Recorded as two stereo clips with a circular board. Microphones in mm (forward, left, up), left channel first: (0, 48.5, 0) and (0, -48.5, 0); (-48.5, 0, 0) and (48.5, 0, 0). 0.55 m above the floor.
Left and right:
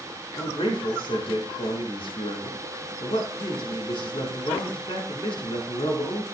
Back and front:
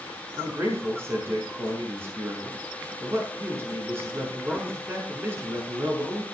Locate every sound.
0.4 s a man speaking: 65° left, 5.5 m